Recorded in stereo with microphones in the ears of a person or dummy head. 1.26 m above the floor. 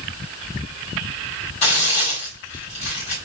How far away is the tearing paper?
About 1.5 m.